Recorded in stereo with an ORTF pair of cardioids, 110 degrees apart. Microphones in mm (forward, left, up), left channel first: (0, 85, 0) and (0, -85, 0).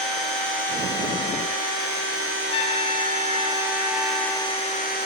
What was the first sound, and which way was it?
A trumpet, 30° left.